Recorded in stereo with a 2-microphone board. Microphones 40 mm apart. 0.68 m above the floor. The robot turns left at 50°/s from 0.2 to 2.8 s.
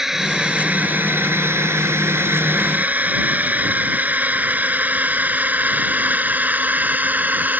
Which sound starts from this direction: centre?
A drone, at 0.0 s.